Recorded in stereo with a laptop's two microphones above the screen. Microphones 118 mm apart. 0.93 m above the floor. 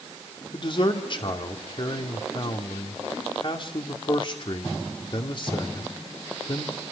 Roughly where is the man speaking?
Left.